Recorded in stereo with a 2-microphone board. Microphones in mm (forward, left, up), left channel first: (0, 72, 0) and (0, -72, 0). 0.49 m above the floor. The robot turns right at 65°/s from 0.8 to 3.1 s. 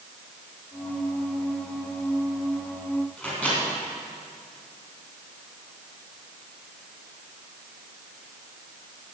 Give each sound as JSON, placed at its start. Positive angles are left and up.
{"t": 3.2, "sound": "a microwave", "side_deg": 10, "distance_m": 4.0}